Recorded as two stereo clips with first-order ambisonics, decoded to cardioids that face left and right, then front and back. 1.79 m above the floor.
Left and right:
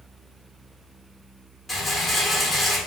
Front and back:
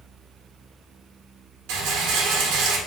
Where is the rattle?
175° left, 1.1 m.